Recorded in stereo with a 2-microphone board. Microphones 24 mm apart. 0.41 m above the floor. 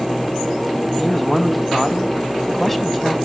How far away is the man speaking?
About 2.5 m.